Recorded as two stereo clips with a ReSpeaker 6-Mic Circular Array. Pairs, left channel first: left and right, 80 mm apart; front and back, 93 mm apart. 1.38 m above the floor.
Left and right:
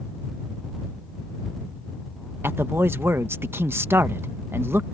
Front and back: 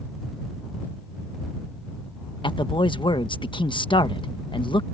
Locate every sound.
2.4 s a man speaking: 30° right